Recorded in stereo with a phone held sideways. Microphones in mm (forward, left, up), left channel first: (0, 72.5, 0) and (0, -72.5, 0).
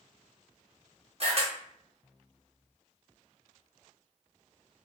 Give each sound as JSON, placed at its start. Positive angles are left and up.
{"t": 1.2, "sound": "a camera shutter", "side_deg": -50, "distance_m": 1.0}